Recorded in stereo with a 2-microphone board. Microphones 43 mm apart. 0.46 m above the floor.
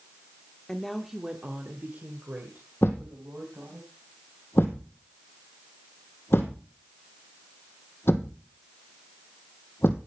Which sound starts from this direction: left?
A thud, at 2.8 s.